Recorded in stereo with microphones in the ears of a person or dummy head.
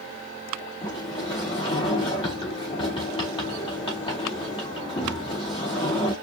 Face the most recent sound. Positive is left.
turn(degrees=30)  # may be behind; listen again after turning